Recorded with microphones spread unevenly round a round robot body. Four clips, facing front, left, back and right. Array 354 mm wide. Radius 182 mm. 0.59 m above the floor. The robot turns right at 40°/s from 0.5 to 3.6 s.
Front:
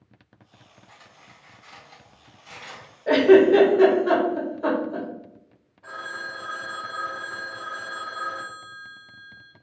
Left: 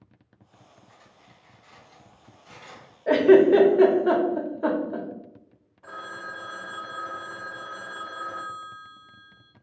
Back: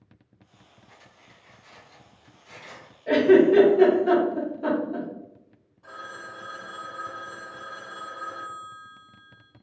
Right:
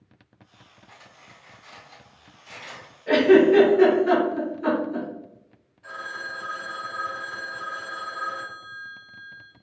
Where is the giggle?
35° left, 1.3 m; by 5.1 s 60° left, 1.3 m.